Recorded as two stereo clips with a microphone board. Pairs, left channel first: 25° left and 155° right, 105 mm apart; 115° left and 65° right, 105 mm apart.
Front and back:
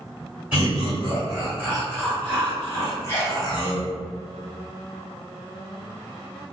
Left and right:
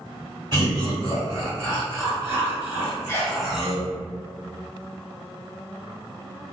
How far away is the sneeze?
About 1.0 m.